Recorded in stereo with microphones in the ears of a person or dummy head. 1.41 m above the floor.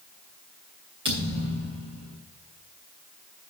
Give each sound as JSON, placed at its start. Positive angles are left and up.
{"t": 1.1, "sound": "a thud", "side_deg": -25, "distance_m": 2.0}